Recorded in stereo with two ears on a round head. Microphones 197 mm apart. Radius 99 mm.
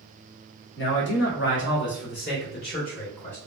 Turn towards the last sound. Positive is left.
turn(degrees=40)  # may be behind; listen again after turning